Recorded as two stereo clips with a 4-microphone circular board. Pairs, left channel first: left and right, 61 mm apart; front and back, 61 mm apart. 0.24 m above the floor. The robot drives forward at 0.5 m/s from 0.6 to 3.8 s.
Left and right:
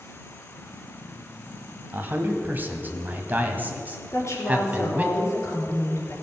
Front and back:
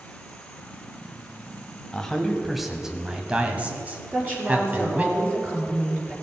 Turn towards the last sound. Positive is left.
turn(degrees=120)